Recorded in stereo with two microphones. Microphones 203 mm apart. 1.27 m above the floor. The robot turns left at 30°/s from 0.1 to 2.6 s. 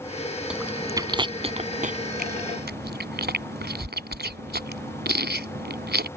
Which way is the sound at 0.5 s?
5° right (ahead or behind).